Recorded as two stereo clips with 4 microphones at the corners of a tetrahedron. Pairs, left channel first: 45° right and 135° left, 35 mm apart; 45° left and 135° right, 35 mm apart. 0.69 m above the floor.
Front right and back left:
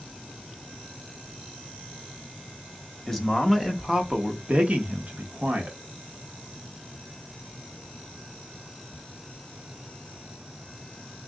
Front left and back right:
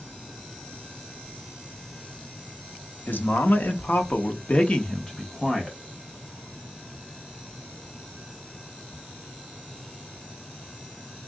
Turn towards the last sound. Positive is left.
turn(degrees=130)